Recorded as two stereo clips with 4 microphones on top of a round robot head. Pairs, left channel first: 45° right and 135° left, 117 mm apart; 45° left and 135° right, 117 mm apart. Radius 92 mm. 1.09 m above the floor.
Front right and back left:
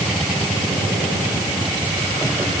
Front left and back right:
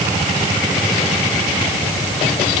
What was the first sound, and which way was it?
Only background noise.